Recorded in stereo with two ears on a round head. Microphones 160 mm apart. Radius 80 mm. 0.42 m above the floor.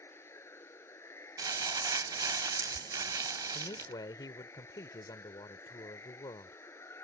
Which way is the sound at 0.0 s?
15° left (ahead or behind).